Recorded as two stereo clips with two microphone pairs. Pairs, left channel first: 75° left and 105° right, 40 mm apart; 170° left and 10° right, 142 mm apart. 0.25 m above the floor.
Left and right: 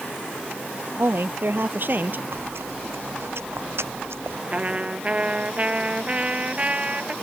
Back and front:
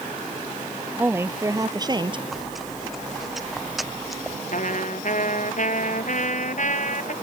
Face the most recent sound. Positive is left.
turn(degrees=-165)